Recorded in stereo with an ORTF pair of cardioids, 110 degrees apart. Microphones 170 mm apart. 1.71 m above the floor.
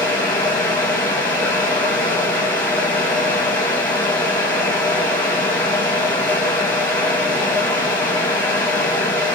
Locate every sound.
0.0 s a fan: 10° left, 2 m